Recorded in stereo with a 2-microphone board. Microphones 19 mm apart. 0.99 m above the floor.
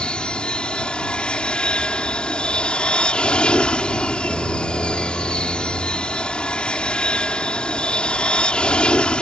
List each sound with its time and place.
0.0 s an aircraft: 60° left (ahead or behind)